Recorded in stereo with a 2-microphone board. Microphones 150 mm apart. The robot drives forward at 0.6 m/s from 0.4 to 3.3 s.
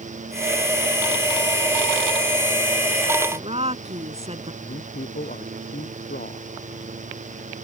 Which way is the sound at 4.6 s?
80° left.